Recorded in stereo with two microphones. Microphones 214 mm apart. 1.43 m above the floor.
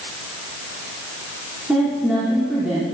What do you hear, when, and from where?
1.7 s a woman speaking: 5° right (ahead or behind), 4 m